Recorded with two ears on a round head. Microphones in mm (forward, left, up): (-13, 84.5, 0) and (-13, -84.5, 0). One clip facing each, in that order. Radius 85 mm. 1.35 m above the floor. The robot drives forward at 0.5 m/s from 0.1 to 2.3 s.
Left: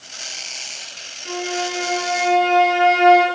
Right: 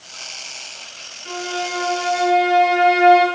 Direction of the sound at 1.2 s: 20° left (ahead or behind).